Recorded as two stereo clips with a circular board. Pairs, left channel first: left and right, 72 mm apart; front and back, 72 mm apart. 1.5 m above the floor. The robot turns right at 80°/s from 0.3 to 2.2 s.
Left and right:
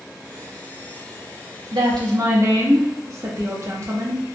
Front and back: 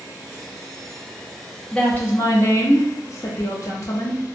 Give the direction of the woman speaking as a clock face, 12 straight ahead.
3 o'clock.